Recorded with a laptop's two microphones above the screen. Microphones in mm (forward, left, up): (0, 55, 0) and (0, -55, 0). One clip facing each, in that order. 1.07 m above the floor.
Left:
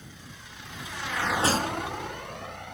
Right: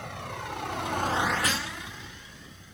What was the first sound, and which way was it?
A vehicle, 80° right.